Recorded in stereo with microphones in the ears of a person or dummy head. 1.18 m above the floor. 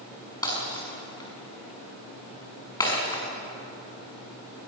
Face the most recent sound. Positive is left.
turn(degrees=20)  # may be behind; listen again after turning